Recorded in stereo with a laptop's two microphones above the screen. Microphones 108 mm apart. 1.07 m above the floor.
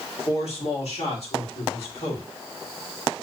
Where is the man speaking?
70° left (ahead or behind), 2.5 m.